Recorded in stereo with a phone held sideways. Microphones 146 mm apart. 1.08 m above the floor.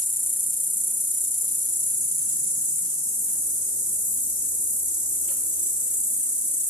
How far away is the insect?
About 0.8 m.